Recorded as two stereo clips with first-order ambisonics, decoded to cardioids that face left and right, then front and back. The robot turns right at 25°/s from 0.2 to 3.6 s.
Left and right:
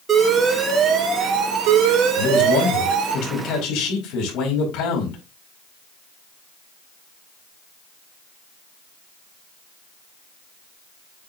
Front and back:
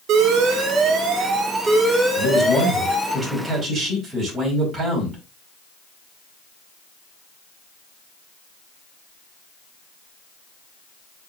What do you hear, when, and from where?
0.1 s an alarm: 155° right, 2 m; by 3.2 s 80° right, 2 m
2.2 s a man speaking: 80° left, 4.5 m; by 5.2 s 115° left, 4.5 m